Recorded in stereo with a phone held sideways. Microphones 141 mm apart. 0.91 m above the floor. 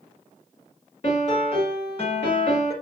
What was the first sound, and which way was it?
A piano, 45° left (ahead or behind).